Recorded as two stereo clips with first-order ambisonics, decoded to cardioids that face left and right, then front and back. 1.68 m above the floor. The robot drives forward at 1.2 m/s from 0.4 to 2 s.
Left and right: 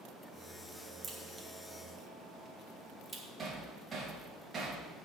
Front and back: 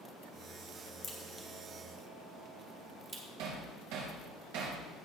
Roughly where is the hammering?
Behind.